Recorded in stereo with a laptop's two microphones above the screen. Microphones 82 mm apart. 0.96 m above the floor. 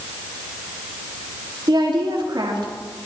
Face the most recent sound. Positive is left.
turn(degrees=-65)  # may be behind; listen again after turning